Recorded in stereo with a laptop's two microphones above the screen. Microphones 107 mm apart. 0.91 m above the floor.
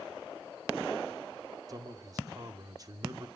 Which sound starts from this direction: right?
A man speaking, at 1.7 s.